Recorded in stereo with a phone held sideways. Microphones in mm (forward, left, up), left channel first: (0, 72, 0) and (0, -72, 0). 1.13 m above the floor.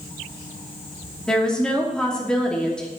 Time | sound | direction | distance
1.3 | a woman speaking | 5° left (ahead or behind) | 2.5 m